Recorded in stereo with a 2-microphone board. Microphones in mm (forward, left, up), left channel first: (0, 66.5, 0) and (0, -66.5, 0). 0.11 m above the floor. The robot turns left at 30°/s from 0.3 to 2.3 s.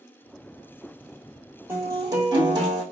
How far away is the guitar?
About 1.3 m.